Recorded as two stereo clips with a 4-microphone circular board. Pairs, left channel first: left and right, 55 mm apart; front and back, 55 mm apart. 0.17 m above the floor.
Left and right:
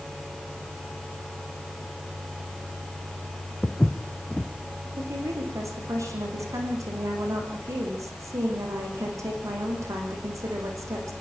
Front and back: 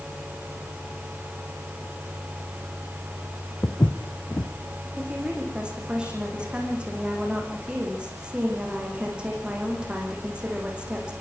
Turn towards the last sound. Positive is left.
turn(degrees=-110)